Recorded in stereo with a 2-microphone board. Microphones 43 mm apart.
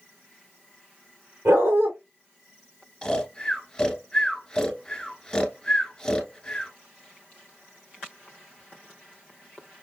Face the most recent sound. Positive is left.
turn(degrees=15)  # may be behind; listen again after turning